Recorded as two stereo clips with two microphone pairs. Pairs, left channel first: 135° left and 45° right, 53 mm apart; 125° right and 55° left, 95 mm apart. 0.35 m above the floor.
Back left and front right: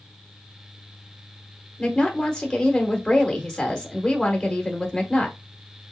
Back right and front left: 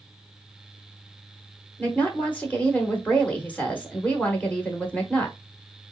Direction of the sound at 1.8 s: 175° right.